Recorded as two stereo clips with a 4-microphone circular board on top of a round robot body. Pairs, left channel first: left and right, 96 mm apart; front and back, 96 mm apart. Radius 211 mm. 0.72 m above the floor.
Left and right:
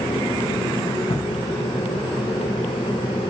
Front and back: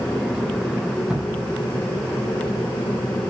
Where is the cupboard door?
95° left, 6 m.